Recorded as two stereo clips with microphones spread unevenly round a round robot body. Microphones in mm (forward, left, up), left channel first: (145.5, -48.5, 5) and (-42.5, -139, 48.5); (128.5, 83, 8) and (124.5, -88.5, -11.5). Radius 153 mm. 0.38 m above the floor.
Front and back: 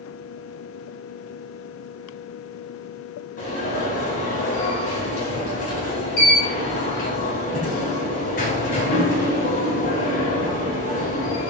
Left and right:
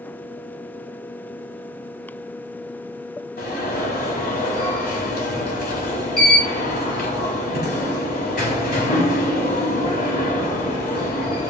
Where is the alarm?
70° left, 4 m.